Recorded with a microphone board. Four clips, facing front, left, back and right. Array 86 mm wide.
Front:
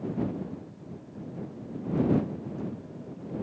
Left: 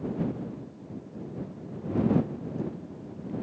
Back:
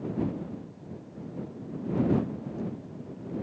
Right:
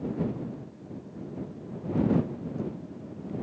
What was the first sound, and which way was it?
Only background noise.